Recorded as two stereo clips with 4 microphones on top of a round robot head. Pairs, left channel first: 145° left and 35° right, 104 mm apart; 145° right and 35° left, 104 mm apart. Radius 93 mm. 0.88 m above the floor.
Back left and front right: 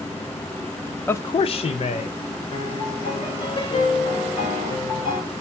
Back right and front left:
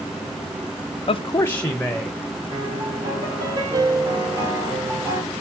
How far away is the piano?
About 1.9 m.